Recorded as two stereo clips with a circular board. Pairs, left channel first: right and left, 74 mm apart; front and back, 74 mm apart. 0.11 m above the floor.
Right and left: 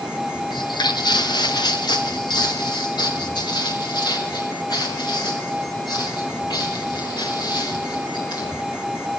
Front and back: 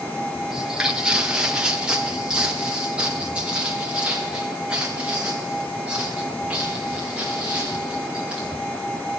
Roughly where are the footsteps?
Right.